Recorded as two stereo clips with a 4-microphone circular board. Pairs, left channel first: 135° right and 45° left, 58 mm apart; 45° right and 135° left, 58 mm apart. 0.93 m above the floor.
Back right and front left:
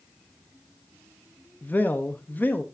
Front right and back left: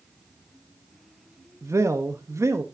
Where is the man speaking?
165° left, 0.9 m.